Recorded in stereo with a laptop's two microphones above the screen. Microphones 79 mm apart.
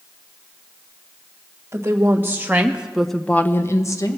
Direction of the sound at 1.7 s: 30° right (ahead or behind).